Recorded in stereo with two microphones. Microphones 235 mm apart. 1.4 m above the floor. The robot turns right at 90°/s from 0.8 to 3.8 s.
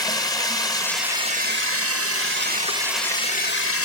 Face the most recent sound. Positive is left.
turn(degrees=75)